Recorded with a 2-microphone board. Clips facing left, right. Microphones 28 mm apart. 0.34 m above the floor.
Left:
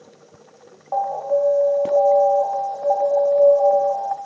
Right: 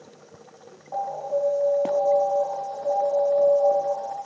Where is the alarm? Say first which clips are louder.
Left 6 dB; 45° left (ahead or behind), 1.3 m.